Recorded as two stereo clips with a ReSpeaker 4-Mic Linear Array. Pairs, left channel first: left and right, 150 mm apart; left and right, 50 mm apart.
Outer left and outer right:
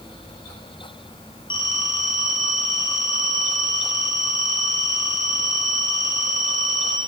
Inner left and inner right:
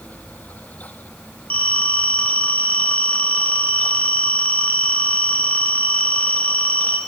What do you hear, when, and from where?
1.5 s a phone ringing: 35° left (ahead or behind), 4.5 m